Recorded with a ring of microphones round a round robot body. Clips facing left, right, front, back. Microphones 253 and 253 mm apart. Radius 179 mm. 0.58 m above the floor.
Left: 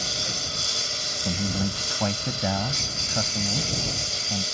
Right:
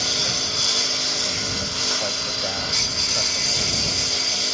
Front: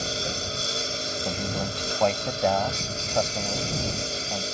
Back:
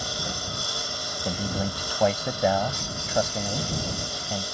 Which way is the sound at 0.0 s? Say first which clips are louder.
Right 5 dB, front 3 dB; 75° right.